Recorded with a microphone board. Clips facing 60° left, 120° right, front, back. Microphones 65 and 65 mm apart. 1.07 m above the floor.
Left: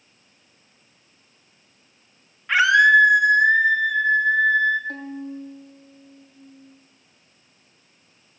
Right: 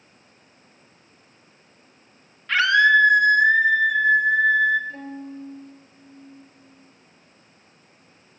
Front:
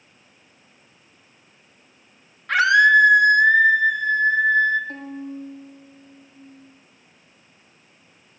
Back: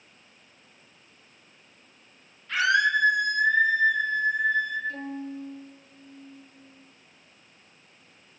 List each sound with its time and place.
2.5 s a scream: 10° right, 2.0 m; by 4.8 s 35° right, 3 m
4.9 s a violin: 40° left, 8.5 m